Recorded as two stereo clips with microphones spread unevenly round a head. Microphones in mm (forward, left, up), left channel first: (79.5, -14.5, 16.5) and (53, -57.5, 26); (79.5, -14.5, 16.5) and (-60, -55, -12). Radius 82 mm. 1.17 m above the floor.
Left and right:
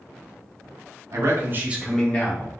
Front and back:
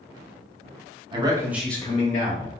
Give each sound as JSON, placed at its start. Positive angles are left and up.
{"t": 1.1, "sound": "a man speaking", "azimuth_deg": -125, "distance_m": 0.9}